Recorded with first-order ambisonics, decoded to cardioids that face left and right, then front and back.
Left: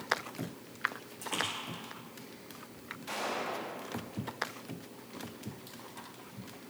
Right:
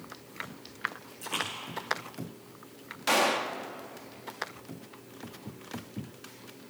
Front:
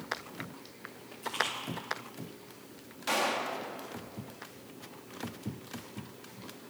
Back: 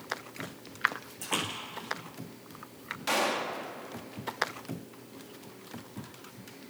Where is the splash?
175° left, 9.5 m.